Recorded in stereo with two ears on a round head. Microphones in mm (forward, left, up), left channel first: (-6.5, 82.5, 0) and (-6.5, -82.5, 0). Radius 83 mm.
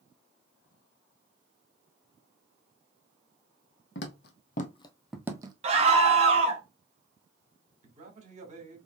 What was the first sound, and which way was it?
Footsteps, 65° left (ahead or behind).